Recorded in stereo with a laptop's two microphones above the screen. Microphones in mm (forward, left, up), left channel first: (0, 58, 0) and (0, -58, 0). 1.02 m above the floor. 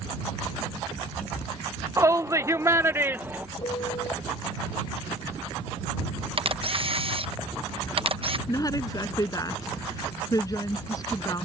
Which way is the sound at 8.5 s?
30° left (ahead or behind).